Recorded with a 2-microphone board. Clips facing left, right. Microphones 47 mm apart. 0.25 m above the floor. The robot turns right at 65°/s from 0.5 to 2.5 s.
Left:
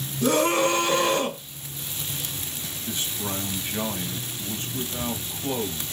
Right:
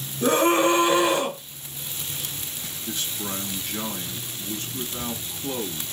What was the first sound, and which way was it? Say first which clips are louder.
A scream: right 2 dB; 65° right.